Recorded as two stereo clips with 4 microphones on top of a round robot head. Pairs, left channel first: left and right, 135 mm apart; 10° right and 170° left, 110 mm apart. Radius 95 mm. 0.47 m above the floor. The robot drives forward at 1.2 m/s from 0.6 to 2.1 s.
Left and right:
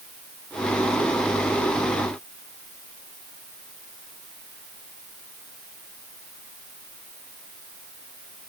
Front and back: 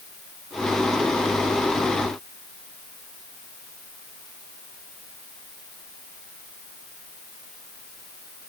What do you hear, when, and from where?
Only background noise.